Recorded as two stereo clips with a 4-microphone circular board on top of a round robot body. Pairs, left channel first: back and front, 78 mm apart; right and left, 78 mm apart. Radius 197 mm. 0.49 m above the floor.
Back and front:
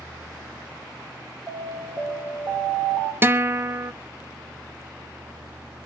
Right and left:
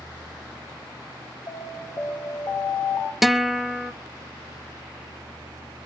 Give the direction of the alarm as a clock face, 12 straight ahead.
2 o'clock.